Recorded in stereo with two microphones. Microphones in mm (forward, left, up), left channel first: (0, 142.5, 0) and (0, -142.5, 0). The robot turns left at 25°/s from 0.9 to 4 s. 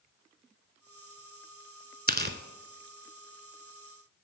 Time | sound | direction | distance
2.1 | tearing paper | 35° right (ahead or behind) | 0.7 m